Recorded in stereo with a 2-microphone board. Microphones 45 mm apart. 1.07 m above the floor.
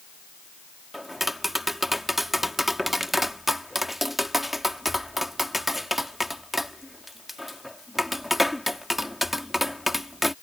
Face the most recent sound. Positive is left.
turn(degrees=-5)  # may be behind; listen again after turning